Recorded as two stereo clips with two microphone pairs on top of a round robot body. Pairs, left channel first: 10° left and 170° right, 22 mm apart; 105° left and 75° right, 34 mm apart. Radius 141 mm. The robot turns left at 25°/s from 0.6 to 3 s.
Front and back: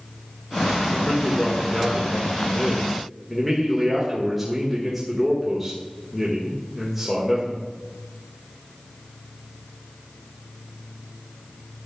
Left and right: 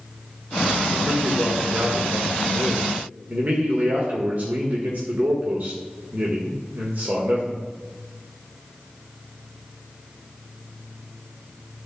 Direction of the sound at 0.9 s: 40° right.